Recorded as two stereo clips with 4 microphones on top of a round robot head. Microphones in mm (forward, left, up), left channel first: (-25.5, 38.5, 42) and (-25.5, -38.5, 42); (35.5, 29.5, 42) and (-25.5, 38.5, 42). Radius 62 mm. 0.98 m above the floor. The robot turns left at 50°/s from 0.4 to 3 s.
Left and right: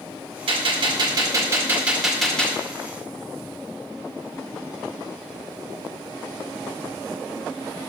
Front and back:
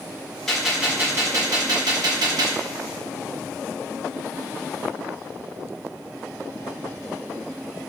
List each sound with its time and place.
0.5 s a gunshot: 95° right, 1.8 m; by 2.6 s 160° left, 1.8 m